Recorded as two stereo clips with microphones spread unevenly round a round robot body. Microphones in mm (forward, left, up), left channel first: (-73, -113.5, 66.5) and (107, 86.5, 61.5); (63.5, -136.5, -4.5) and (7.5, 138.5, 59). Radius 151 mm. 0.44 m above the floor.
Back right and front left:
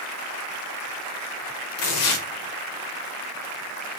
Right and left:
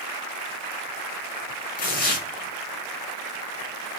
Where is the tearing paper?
135° right, 0.9 m.